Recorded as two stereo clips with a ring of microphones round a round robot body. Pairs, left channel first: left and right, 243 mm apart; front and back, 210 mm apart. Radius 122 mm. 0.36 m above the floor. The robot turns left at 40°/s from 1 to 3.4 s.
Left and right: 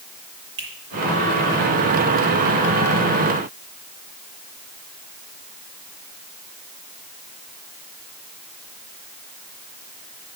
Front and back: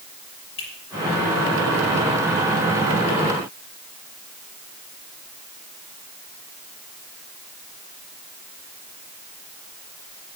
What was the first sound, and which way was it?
A finger snap, 45° right.